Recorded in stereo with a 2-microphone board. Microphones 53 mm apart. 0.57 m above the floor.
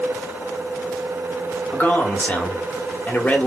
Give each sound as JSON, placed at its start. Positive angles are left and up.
{"t": 1.7, "sound": "a man speaking", "side_deg": 30, "distance_m": 1.1}